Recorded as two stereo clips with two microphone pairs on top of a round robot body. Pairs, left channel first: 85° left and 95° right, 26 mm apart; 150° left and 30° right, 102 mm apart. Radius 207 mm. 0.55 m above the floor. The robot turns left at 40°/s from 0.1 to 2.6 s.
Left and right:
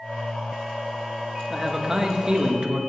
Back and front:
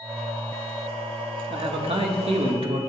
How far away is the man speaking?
About 1.7 m.